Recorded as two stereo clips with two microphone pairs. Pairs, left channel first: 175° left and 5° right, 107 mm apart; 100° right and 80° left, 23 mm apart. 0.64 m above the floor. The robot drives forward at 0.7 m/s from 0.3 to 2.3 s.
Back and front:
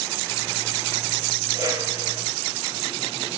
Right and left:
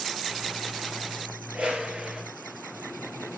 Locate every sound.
1.5 s a whoosh: 55° left, 6 m; by 2.2 s 60° left, 5.5 m